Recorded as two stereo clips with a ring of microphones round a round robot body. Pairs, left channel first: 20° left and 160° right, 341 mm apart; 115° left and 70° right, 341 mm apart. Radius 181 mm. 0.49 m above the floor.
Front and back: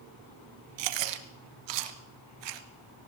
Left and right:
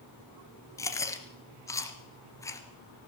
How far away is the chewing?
About 1.7 m.